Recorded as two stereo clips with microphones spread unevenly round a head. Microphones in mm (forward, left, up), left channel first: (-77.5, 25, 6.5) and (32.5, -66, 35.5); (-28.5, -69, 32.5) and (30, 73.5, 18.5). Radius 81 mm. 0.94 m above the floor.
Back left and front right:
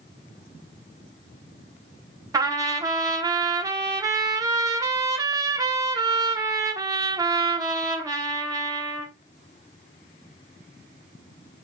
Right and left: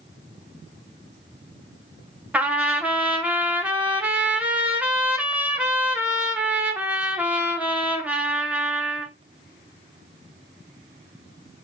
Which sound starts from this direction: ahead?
A trumpet, at 2.3 s.